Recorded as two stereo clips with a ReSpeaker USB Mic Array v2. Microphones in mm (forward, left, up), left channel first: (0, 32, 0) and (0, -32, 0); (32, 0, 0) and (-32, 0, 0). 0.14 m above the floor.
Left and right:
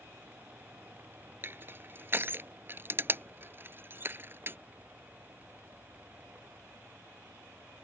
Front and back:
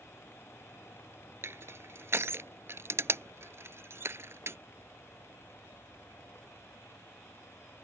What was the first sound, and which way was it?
Crushing, 140° right.